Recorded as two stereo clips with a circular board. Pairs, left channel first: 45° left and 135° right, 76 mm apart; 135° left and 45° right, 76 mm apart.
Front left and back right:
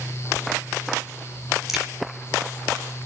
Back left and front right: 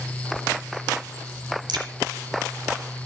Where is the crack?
50° right, 4 m.